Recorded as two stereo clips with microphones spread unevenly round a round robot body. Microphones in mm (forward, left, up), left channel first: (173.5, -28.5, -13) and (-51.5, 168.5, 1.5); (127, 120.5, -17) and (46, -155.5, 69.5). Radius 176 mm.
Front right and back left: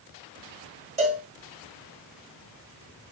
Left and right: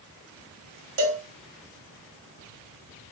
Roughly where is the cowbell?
Behind right.